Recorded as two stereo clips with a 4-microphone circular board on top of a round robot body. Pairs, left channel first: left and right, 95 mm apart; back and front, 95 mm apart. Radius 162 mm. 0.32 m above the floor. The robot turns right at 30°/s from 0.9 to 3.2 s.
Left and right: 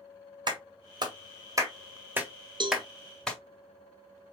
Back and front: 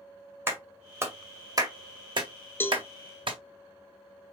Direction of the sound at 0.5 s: 60° right.